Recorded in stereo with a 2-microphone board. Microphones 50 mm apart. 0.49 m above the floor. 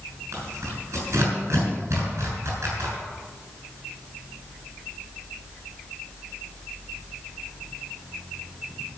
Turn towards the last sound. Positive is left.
turn(degrees=-65)  # may be behind; listen again after turning